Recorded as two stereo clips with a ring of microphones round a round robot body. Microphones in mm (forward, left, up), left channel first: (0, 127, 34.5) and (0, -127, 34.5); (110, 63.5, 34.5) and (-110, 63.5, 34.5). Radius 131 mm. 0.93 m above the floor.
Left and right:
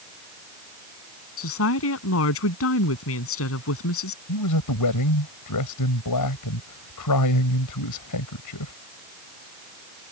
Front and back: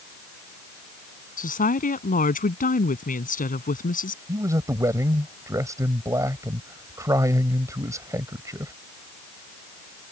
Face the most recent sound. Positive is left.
turn(degrees=105)